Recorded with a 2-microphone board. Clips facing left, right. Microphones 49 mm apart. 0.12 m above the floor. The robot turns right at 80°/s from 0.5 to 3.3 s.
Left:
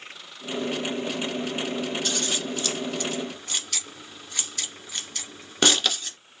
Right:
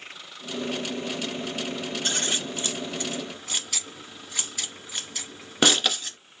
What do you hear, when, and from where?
2.0 s scissors: 30° right (ahead or behind), 1.5 m; by 6.2 s 5° right (ahead or behind), 1.5 m